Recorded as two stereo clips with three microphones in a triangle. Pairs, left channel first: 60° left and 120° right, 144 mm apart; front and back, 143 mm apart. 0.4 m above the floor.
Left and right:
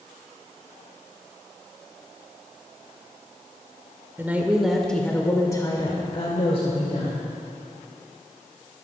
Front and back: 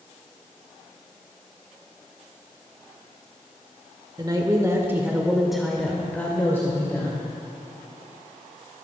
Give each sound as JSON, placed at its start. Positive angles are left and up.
{"t": 4.2, "sound": "a woman speaking", "azimuth_deg": -175, "distance_m": 1.2}